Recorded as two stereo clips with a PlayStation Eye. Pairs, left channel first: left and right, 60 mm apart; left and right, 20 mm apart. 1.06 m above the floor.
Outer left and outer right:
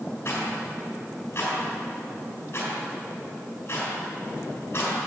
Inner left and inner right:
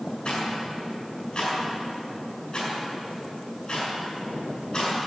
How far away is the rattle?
About 5.5 m.